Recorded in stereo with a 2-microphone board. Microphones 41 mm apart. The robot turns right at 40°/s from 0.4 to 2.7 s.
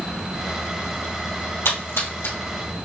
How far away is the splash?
About 1.9 m.